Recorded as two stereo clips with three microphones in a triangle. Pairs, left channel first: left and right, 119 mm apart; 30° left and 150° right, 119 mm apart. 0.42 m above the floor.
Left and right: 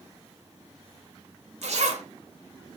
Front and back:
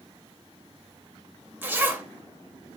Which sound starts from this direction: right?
A zipper, at 1.6 s.